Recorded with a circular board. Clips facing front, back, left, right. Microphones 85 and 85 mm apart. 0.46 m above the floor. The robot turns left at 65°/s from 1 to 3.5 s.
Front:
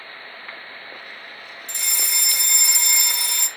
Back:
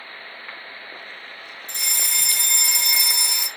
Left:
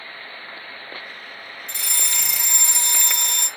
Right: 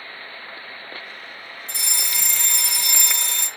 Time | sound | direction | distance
1.7 | a fire alarm | 135° right | 4 m